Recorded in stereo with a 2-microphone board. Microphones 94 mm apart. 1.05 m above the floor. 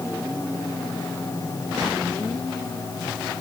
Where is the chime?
I don't hear a chime.